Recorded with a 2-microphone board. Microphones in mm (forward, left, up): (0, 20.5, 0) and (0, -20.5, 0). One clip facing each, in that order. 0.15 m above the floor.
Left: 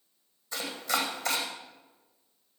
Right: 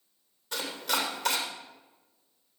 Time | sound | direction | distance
0.5 | chopping | 75° right (ahead or behind) | 3 m